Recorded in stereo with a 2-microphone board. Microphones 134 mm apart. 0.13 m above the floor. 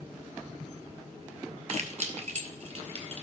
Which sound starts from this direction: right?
Keys jangling, at 1.7 s.